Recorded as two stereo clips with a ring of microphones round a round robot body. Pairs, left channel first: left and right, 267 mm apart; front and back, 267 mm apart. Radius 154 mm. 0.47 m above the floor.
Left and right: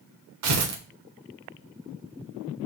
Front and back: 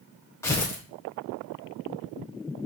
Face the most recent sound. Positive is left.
turn(degrees=-80)